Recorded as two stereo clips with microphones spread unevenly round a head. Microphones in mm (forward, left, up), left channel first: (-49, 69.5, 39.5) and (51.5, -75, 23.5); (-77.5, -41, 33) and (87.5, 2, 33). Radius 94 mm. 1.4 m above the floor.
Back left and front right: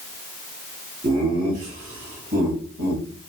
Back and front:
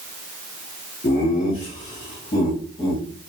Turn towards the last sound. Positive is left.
turn(degrees=-95)